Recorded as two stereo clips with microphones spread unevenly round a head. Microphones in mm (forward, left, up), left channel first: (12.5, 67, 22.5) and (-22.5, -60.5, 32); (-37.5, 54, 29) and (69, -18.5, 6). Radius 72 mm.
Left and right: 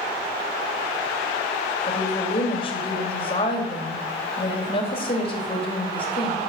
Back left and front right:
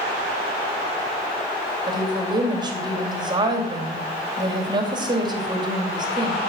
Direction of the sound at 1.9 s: 25° left.